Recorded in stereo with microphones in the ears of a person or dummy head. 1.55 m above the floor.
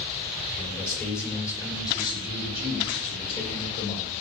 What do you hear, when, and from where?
0.6 s a man speaking: 10° left (ahead or behind), 4.5 m; by 4.1 s 40° left (ahead or behind), 7 m